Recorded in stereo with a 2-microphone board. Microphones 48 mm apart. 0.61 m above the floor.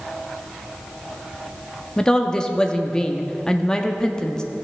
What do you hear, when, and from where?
2.0 s a woman speaking: 15° left (ahead or behind), 0.6 m